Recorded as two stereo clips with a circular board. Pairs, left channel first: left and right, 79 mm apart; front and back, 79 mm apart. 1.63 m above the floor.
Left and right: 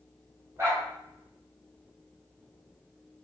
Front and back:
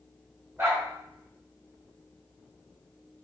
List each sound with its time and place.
0.6 s a dog barking: 130° right, 1.8 m